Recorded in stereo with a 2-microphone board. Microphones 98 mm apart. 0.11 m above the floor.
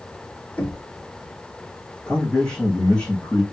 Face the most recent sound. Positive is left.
turn(degrees=10)  # may be behind; listen again after turning